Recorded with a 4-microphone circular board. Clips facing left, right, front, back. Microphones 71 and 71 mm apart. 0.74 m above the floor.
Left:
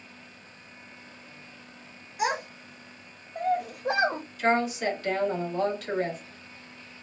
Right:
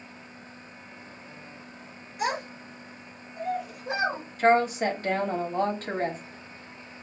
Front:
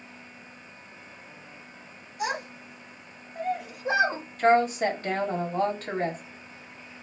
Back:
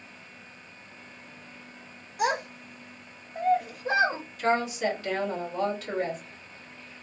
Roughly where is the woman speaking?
Ahead right.